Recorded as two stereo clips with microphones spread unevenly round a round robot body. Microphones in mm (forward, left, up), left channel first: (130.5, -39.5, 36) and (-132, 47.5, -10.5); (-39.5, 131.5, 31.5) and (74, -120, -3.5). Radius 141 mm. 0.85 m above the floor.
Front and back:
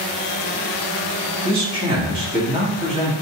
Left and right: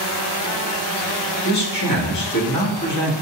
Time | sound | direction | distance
1.4 | a man speaking | 95° left | 1.6 m